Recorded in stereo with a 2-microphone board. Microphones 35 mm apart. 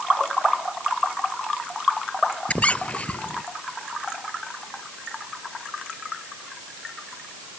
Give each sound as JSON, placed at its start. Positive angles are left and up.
{"t": 2.5, "sound": "a squeak", "side_deg": 35}